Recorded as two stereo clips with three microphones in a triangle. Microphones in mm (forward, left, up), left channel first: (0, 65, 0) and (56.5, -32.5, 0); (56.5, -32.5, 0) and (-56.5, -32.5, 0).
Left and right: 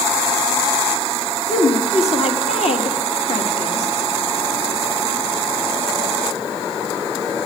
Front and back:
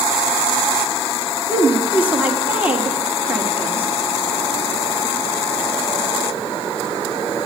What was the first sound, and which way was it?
A woman speaking, 105° left.